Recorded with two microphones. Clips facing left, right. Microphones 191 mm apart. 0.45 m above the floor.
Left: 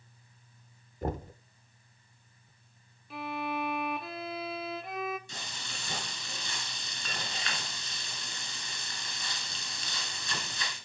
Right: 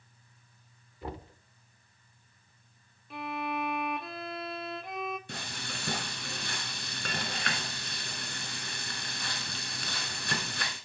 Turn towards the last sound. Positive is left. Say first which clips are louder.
# right 4 dB
turn(degrees=-60)  # may be behind; listen again after turning